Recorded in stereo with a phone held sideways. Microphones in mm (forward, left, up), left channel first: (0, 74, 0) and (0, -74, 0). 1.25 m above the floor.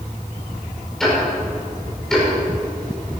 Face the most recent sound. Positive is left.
turn(degrees=5)  # may be behind; listen again after turning